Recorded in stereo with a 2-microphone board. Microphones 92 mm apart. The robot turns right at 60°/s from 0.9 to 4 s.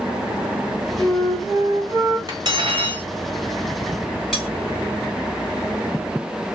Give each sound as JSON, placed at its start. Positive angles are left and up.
{"t": 1.0, "sound": "a flute", "azimuth_deg": 155, "distance_m": 1.2}
{"t": 2.3, "sound": "cutlery clinking", "azimuth_deg": -130, "distance_m": 1.1}
{"t": 4.3, "sound": "cutlery clinking", "side_deg": 0, "distance_m": 2.0}